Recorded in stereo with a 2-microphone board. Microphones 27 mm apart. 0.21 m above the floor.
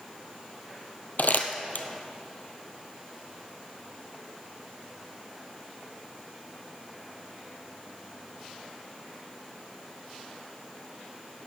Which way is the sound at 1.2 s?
85° left.